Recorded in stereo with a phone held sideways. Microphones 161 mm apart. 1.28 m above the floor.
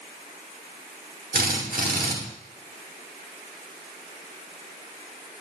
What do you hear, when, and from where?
1.3 s a drill: 60° right (ahead or behind), 2 m